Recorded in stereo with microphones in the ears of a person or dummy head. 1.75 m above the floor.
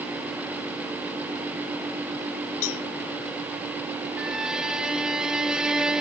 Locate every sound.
2.6 s a cowbell: 75° left (ahead or behind), 1.1 m
4.2 s a violin: centre (ahead or behind), 0.7 m